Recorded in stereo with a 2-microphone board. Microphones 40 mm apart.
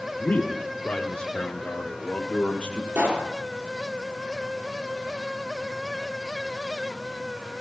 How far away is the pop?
About 4 m.